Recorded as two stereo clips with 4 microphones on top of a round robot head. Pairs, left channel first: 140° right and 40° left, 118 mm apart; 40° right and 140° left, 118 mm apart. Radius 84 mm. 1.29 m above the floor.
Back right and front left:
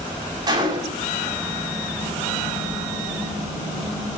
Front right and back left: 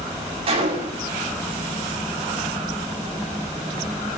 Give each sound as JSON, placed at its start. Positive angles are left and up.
{"t": 0.5, "sound": "a gunshot", "azimuth_deg": 100, "distance_m": 7.5}